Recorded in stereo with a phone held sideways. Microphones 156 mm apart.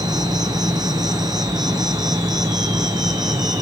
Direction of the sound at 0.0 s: 25° right (ahead or behind).